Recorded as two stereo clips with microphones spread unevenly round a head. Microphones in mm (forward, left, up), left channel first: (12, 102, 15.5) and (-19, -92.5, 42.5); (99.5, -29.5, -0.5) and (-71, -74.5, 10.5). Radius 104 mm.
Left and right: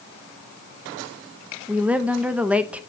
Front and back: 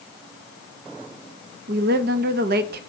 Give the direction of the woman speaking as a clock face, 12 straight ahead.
6 o'clock.